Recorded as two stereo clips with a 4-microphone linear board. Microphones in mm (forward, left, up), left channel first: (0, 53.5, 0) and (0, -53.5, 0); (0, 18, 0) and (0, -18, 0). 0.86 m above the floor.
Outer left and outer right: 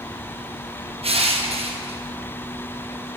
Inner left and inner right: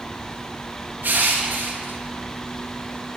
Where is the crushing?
65° right (ahead or behind), 0.5 m.